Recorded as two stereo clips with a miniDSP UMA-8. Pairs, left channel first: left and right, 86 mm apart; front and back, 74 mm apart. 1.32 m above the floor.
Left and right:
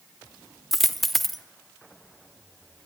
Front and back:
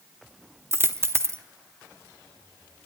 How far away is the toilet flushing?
No toilet flushing in this recording.